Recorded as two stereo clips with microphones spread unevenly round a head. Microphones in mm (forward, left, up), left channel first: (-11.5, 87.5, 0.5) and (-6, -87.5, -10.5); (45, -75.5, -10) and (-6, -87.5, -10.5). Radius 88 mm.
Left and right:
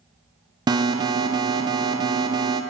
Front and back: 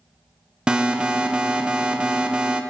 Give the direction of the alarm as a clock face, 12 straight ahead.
4 o'clock.